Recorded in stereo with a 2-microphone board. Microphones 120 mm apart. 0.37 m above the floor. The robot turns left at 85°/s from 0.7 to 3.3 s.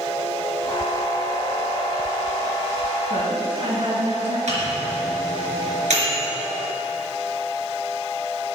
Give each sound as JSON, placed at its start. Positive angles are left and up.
{"t": 3.1, "sound": "a woman speaking", "side_deg": -75, "distance_m": 4.5}
{"t": 4.5, "sound": "a microwave", "side_deg": -80, "distance_m": 4.0}